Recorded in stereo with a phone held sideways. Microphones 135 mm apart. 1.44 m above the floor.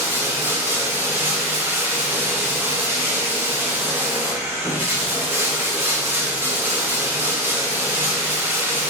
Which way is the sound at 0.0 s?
15° right (ahead or behind).